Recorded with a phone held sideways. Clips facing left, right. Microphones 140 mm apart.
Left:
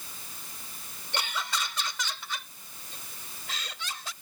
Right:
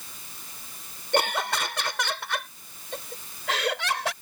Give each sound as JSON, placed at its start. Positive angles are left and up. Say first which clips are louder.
{"t": 1.1, "sound": "laughter", "louder": "right 9 dB", "side_deg": -60}